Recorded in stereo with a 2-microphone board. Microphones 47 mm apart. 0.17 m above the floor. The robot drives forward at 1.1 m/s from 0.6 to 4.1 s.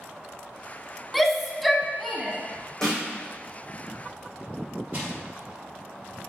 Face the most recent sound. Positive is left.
turn(degrees=-30)  # may be behind; listen again after turning